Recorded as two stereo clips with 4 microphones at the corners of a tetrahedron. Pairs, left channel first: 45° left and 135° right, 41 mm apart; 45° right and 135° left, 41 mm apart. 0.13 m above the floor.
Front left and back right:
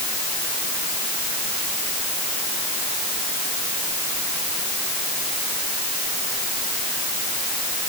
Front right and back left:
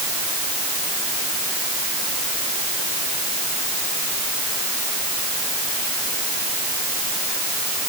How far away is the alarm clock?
I don't hear an alarm clock.